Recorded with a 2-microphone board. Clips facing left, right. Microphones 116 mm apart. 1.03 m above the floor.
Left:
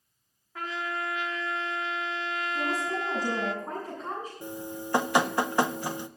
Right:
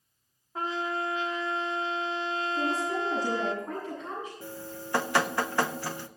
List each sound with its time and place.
0.6 s a trumpet: 30° right (ahead or behind), 0.8 m
2.5 s a woman speaking: 40° left (ahead or behind), 7 m
4.4 s dripping: 20° left (ahead or behind), 0.5 m